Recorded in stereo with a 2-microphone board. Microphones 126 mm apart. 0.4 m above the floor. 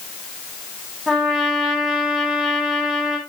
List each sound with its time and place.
1.1 s a trumpet: centre (ahead or behind), 3 m